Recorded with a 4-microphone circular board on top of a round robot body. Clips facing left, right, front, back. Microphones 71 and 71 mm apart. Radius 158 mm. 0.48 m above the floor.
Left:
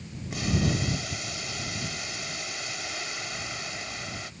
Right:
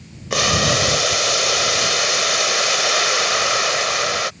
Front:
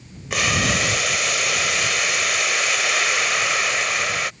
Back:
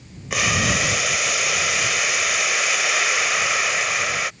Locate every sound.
0.3 s boiling: 90° right